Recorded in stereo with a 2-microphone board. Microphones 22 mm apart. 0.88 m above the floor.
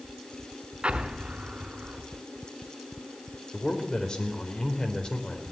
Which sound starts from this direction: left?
A man speaking, at 3.5 s.